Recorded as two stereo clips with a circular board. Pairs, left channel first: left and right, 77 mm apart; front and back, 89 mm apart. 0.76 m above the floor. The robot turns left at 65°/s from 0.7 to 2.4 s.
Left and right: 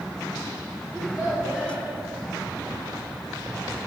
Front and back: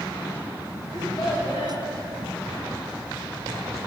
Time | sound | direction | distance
0.9 | a child speaking | 45° left | 4 m